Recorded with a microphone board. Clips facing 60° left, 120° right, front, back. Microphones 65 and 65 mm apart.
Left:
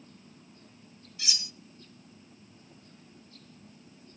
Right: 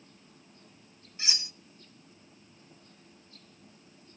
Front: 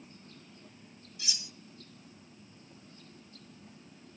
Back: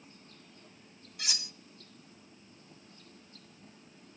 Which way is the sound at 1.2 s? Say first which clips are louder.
Right 1 dB, back 4 dB; 175° right.